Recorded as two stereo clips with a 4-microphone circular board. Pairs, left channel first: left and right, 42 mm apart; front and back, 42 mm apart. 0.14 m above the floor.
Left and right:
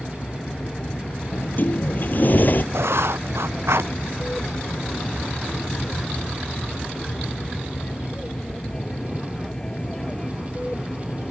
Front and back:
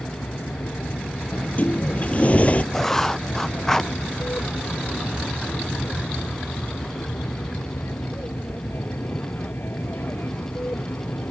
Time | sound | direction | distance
0.0 | an aircraft | 15° left | ?
1.3 | a sliding door | 50° left | ?
2.7 | writing | 85° right | ?